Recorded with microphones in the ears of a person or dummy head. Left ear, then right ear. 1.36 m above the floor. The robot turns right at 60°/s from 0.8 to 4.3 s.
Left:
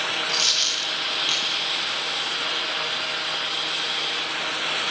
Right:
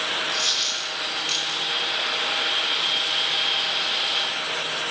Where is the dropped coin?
35° left (ahead or behind), 1.8 m; by 1.6 s 5° right (ahead or behind), 1.8 m.